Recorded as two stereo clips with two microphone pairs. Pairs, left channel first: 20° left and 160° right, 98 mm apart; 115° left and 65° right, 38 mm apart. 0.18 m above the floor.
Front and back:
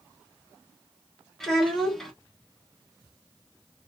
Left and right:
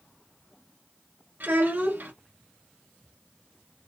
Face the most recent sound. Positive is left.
turn(degrees=-70)